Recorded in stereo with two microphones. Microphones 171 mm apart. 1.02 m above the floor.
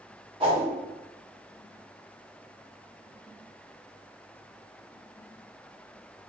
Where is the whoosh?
30° right (ahead or behind), 1.0 m.